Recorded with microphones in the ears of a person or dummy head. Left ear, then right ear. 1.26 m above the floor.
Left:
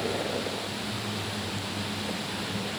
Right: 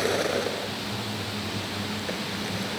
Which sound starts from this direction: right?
A vehicle, at 0.0 s.